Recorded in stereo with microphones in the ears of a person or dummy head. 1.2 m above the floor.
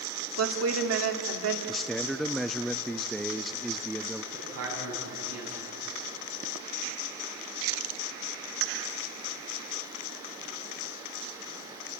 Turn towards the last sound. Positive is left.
turn(degrees=-80)